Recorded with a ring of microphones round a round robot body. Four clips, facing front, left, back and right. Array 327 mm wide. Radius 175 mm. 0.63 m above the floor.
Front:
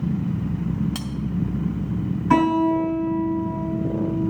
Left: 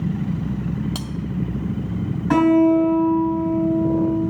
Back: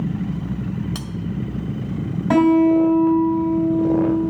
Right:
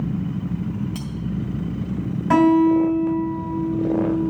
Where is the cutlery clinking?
110° left, 1.7 m.